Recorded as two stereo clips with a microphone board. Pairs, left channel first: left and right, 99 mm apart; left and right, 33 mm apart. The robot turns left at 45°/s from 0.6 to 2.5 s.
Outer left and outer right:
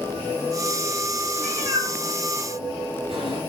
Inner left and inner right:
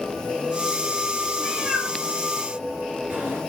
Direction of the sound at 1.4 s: 10° right (ahead or behind).